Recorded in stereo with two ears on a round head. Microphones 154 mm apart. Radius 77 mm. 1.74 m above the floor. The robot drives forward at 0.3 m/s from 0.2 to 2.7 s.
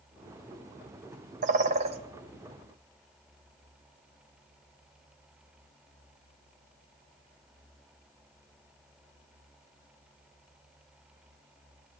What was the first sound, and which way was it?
A bird, 45° right (ahead or behind).